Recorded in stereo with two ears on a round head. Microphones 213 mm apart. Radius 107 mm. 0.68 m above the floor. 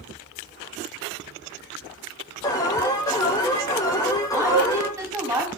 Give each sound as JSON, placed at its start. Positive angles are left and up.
{"t": 2.4, "sound": "an alarm", "side_deg": 15, "distance_m": 3.5}
{"t": 4.3, "sound": "a woman speaking", "side_deg": -10, "distance_m": 5.0}